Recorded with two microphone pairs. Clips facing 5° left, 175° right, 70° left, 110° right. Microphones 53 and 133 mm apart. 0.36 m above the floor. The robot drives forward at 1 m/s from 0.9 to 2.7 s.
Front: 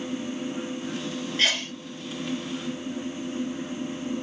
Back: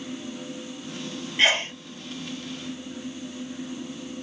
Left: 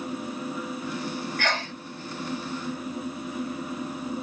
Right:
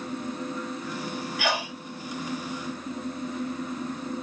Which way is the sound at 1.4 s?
175° right.